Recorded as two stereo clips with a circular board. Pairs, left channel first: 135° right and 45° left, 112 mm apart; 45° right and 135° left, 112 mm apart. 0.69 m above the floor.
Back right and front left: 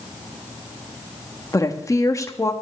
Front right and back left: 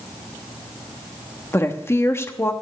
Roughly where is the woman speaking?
Right.